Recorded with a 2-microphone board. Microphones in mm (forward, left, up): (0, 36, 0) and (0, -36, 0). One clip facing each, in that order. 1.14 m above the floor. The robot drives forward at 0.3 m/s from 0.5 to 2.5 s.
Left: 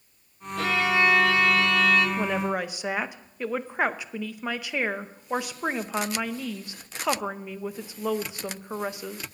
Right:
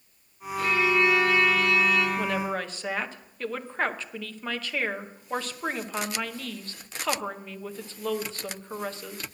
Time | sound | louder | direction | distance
0.6 | a violin | even | 75° left (ahead or behind) | 1.6 m
2.2 | a woman speaking | left 2 dB | 15° left (ahead or behind) | 0.6 m